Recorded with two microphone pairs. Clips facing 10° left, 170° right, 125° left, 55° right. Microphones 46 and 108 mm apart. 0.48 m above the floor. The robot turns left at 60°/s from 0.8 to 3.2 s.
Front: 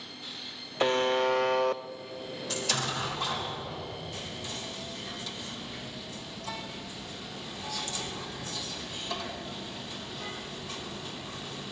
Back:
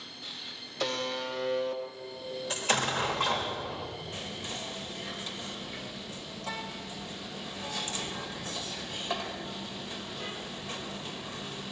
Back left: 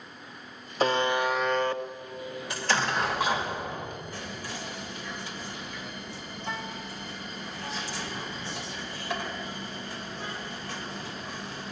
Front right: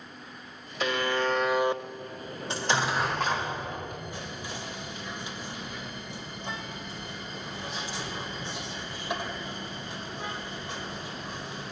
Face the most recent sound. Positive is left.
turn(degrees=-125)